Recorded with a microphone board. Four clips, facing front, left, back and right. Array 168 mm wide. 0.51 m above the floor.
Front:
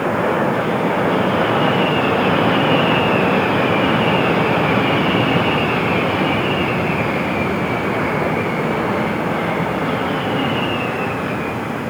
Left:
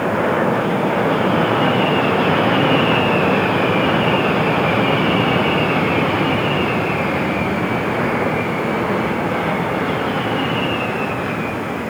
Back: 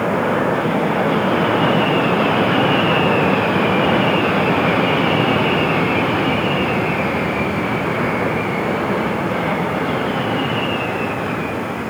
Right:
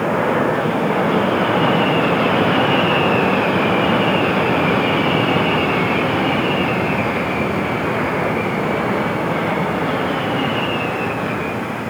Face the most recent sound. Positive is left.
No sound to turn to.